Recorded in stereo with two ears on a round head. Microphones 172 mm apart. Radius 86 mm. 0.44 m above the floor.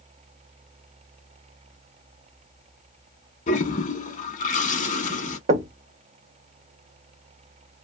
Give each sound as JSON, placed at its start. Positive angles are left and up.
{"t": 3.5, "sound": "a toilet flushing", "side_deg": 40, "distance_m": 0.7}
{"t": 5.5, "sound": "knocking", "side_deg": -40, "distance_m": 0.7}